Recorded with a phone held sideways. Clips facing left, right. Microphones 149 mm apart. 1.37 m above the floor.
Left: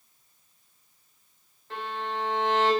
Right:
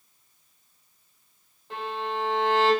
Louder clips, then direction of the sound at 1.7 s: Right 2 dB; 20° right (ahead or behind).